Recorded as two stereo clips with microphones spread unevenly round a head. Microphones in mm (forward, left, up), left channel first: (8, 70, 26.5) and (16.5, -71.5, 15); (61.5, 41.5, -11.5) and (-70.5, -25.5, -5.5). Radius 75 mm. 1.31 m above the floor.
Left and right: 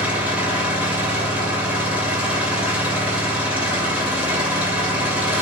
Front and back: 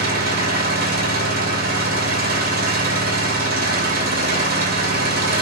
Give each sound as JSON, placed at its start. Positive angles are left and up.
{"t": 0.0, "sound": "an engine running", "azimuth_deg": -170, "distance_m": 2.5}